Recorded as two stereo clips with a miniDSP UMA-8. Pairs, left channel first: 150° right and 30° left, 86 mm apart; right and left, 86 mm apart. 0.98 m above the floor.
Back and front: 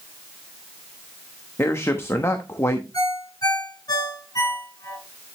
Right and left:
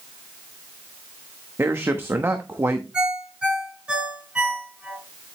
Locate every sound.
1.6 s a man speaking: 150° left, 1.0 m
2.9 s a ringtone: 170° left, 6.5 m